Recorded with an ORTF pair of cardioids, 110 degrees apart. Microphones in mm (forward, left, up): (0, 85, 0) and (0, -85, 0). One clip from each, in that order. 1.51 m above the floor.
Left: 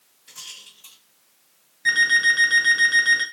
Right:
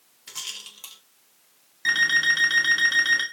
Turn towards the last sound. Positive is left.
turn(degrees=-25)